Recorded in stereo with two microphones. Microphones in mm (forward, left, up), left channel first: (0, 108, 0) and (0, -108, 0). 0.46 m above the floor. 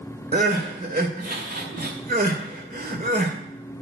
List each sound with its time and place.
0.3 s crying: 45° right (ahead or behind), 1.9 m